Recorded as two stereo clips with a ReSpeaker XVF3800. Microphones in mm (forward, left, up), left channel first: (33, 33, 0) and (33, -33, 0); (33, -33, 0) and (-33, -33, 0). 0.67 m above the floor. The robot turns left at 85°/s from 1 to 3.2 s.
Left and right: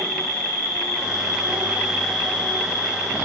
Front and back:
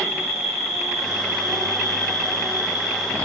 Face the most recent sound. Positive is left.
turn(degrees=80)